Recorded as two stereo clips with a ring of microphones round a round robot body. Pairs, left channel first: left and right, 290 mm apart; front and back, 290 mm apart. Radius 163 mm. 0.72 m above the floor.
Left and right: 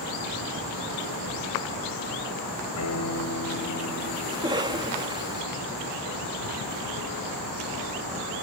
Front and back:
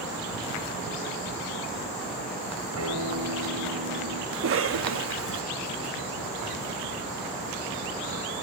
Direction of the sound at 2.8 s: 135° left.